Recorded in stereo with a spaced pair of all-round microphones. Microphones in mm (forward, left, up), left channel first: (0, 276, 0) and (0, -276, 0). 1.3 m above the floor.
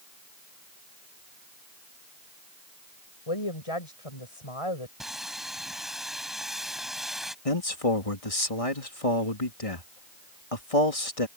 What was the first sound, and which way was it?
A woman speaking, 70° left (ahead or behind).